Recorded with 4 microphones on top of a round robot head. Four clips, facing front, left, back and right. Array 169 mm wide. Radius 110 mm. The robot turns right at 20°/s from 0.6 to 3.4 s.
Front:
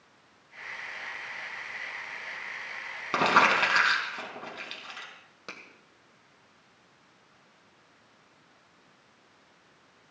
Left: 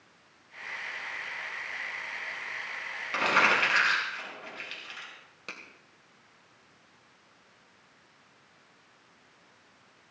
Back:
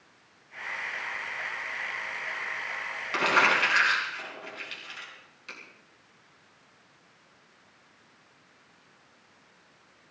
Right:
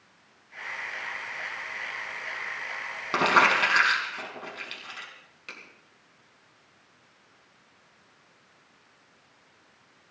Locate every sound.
3.1 s crumpling: 45° right, 4 m; by 5.1 s 40° right, 4 m
5.5 s a finger snap: 30° left, 2.5 m